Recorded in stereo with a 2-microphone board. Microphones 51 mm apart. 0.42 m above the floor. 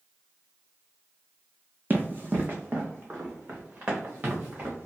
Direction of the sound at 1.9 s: 40° right (ahead or behind).